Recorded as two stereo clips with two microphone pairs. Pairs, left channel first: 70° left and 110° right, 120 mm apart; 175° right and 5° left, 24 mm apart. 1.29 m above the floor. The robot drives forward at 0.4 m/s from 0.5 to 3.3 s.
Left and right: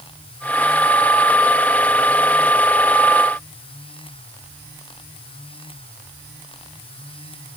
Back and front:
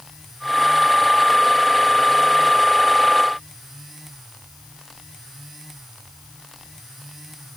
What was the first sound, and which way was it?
Only background noise.